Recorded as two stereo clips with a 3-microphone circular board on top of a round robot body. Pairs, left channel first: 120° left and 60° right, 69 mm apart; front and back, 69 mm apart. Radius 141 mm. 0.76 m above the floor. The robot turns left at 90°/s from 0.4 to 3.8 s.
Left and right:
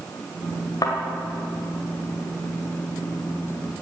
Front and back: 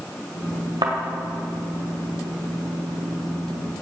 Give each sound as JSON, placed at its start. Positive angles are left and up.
{"t": 0.8, "sound": "a thud", "azimuth_deg": 160, "distance_m": 1.8}